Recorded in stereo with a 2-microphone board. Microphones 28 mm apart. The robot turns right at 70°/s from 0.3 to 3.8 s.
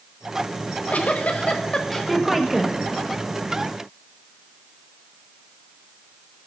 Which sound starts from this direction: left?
A giggle, at 0.6 s.